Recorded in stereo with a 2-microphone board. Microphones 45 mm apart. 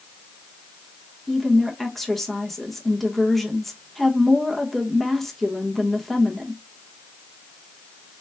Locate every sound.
1.3 s a woman speaking: 5° left (ahead or behind), 1.2 m